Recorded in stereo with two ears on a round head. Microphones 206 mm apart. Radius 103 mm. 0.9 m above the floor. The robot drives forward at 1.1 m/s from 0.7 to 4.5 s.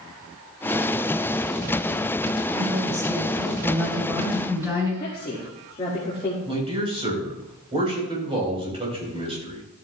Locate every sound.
2.5 s a woman speaking: 20° right (ahead or behind), 3.5 m; by 4.9 s 10° right (ahead or behind), 5.5 m
5.0 s a woman speaking: 25° left (ahead or behind), 1.8 m
6.5 s a man speaking: 25° right (ahead or behind), 4 m